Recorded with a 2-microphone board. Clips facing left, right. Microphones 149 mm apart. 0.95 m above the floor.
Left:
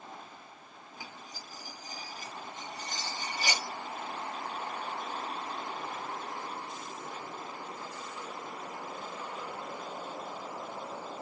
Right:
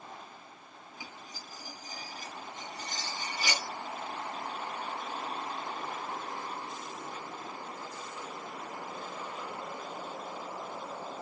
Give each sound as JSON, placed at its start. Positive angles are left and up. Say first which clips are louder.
{"t": 1.0, "sound": "cutlery clinking", "louder": "left 1 dB", "side_deg": 45, "distance_m": 3.0}